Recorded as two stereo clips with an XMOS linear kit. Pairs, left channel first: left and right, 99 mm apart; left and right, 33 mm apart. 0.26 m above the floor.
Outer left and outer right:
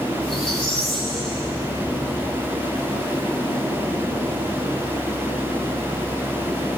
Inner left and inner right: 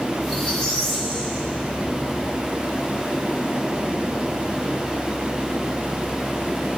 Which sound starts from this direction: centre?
A squeak, at 0.2 s.